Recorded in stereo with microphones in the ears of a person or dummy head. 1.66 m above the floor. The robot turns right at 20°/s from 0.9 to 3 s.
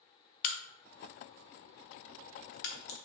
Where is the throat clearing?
No throat clearing in this recording.